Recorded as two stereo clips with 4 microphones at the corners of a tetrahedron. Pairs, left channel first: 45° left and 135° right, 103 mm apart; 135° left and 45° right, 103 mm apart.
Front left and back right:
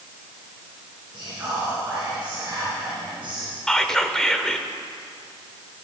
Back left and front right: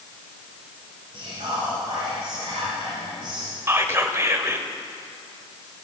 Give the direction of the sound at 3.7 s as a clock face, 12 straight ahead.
1 o'clock.